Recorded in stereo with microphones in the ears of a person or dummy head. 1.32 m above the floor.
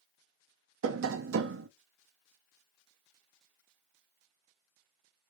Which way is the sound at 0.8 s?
85° right.